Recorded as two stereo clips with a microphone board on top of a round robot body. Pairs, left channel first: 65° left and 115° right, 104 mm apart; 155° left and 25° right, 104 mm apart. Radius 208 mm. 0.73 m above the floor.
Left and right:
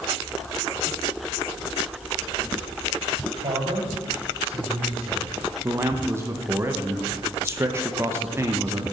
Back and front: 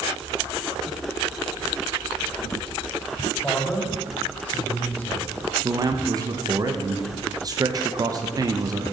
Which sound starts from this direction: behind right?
A man speaking, at 3.4 s.